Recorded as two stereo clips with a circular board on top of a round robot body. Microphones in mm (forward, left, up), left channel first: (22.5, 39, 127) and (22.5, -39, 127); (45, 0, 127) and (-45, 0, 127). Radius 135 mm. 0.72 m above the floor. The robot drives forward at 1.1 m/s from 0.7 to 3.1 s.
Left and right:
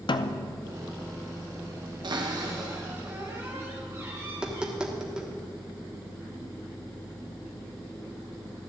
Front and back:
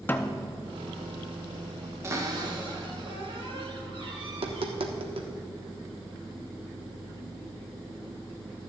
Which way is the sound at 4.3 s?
170° right.